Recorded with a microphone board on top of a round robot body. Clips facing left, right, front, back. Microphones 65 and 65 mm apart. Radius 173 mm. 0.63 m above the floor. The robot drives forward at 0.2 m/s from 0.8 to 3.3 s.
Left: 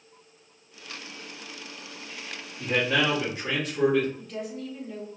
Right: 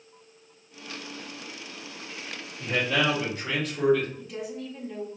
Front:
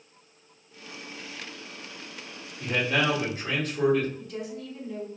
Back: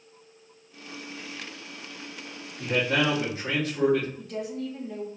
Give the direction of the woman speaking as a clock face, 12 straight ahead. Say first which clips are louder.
Even, back 3 dB; 6 o'clock.